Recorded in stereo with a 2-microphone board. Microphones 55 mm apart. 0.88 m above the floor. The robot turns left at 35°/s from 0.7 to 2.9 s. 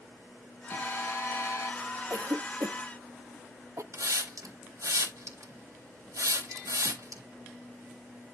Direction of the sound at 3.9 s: 80° right.